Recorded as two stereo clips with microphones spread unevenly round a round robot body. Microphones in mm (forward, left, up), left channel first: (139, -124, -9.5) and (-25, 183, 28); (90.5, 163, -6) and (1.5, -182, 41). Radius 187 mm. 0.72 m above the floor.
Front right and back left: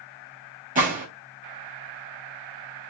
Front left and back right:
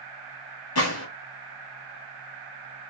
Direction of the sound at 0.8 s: 50° left.